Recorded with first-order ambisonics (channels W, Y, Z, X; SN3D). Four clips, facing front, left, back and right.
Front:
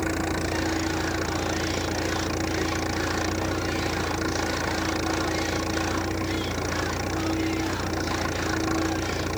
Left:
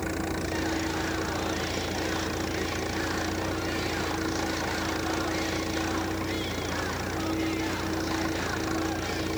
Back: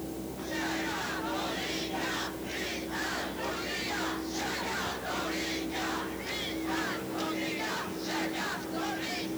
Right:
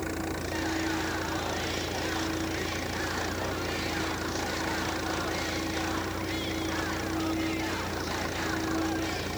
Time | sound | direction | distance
0.0 | an engine running | 5° left | ?